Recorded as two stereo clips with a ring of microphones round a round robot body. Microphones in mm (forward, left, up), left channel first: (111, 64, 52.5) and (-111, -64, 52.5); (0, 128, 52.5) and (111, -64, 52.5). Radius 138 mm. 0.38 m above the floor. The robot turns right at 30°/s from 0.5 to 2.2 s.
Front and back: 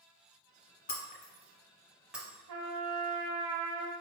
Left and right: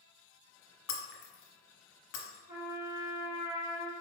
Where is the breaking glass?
85° left, 0.7 m; by 2.4 s 125° left, 0.7 m.